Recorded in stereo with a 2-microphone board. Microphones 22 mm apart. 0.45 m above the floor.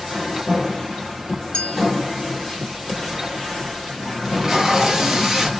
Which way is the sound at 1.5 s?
45° left (ahead or behind).